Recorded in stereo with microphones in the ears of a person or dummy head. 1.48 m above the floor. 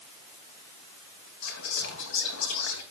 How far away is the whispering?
About 2 m.